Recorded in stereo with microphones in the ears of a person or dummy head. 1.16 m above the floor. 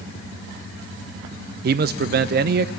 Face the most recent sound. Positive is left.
turn(degrees=-45)  # may be behind; listen again after turning